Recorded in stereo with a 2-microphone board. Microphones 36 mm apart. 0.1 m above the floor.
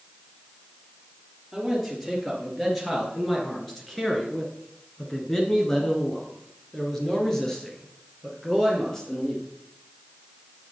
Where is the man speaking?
5° left (ahead or behind), 2.5 m; by 9.4 s 15° left (ahead or behind), 3 m.